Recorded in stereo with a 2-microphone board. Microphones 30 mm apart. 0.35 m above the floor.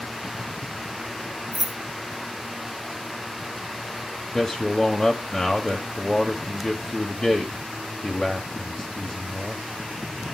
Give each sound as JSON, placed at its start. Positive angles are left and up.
{"t": 1.5, "sound": "keys jangling", "side_deg": -25, "distance_m": 0.7}
{"t": 4.3, "sound": "a man speaking", "side_deg": 10, "distance_m": 1.3}